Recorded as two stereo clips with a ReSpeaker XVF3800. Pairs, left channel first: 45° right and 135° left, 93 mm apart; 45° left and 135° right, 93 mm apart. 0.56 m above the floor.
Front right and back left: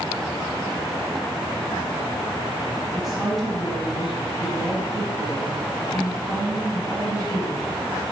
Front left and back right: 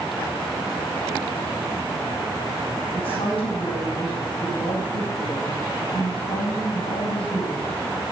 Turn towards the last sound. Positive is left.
turn(degrees=45)